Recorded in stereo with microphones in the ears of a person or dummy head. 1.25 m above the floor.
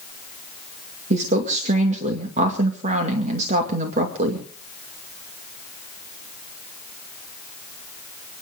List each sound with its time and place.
1.1 s a woman speaking: 40° right (ahead or behind), 2 m